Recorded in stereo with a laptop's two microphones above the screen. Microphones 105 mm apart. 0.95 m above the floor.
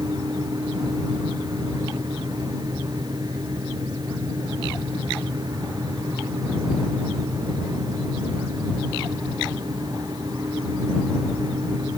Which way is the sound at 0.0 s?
45° right (ahead or behind).